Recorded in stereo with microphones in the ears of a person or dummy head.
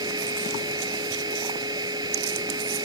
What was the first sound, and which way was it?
A machine running, 20° right (ahead or behind).